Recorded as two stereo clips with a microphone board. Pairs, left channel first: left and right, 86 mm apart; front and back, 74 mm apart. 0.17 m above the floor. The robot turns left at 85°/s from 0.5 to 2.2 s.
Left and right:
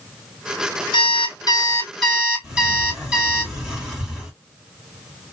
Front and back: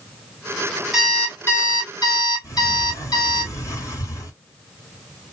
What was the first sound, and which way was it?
An alarm clock, 95° left.